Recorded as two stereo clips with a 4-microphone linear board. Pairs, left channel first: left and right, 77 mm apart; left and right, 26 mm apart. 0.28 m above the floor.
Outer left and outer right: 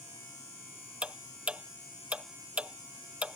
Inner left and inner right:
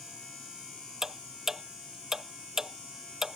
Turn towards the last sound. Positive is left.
turn(degrees=-15)  # may be behind; listen again after turning